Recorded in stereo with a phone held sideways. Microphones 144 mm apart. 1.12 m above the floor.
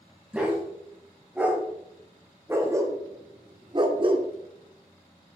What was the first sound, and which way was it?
A dog barking, 5° right (ahead or behind).